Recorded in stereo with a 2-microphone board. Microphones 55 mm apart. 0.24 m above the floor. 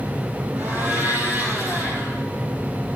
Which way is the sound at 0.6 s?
30° right (ahead or behind).